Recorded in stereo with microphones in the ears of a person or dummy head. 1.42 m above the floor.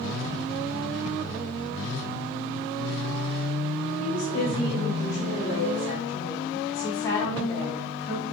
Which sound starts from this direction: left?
A woman speaking, at 4.0 s.